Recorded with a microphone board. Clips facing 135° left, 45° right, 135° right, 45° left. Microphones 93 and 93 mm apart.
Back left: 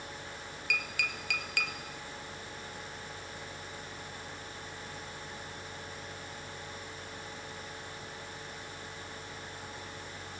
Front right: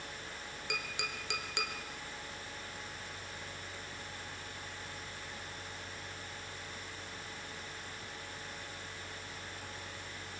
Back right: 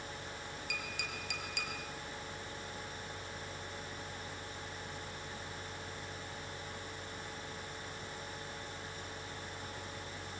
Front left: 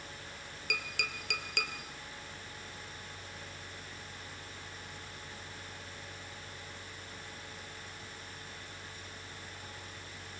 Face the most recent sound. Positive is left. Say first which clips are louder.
# back left 4 dB, front left 7 dB
turn(degrees=20)